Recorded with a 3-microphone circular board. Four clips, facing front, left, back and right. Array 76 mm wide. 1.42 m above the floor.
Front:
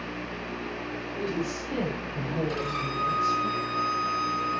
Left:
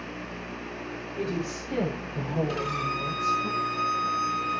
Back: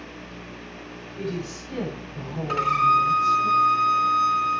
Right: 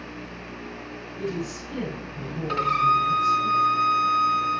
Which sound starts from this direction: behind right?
A violin, at 2.5 s.